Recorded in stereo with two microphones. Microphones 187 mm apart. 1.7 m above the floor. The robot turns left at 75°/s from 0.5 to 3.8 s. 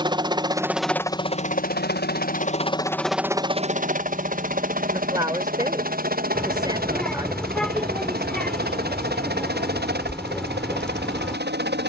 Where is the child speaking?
5° left (ahead or behind).